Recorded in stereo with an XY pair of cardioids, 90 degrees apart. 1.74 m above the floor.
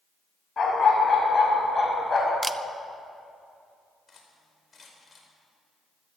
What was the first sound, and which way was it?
A dog barking, 40° left.